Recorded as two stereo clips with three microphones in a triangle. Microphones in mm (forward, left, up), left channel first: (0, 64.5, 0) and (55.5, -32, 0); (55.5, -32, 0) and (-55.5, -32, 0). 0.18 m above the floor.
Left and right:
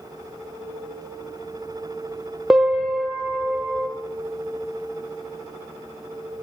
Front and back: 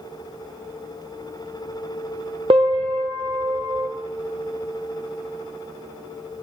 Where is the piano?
145° right, 1.6 m.